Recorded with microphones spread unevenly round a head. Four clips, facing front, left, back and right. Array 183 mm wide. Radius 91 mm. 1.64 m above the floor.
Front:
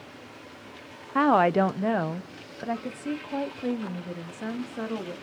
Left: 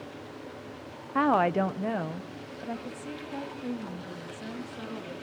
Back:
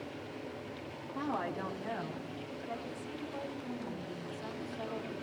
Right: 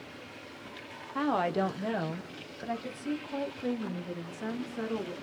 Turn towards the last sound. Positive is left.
turn(degrees=-10)